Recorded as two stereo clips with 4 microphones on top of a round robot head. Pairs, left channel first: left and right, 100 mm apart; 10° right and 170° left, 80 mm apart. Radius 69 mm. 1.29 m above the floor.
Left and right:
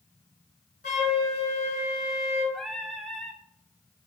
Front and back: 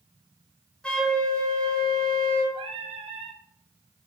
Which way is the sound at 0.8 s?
70° left.